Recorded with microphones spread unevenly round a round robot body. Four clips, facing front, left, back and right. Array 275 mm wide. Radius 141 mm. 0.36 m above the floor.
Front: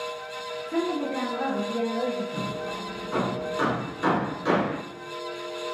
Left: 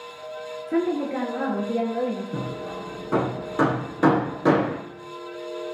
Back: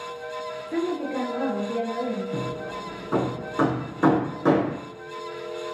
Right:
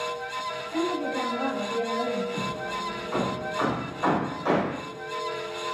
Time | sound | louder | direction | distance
0.7 | a woman speaking | left 5 dB, even | 90° left | 6 m
2.3 | hammering | even, back 1 dB | 125° left | 6.5 m